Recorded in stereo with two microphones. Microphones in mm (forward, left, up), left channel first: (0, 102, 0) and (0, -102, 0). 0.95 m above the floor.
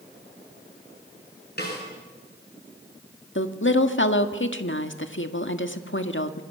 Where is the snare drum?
55° left (ahead or behind), 8 m.